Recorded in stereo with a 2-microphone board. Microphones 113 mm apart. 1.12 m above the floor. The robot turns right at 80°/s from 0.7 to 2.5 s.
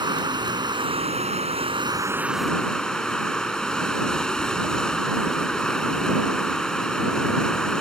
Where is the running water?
135° right; by 7.8 s 5° left.